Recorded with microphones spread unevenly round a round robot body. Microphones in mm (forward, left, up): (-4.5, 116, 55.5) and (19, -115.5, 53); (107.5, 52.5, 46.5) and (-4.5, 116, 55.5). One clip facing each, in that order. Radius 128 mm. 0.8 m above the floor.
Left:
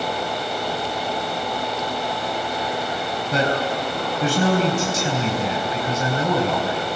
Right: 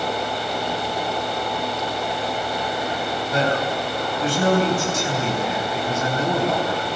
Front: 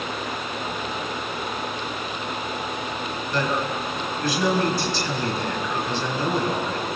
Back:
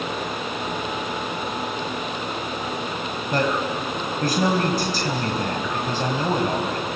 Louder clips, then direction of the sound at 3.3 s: Left 1 dB, back 2 dB; 115° left.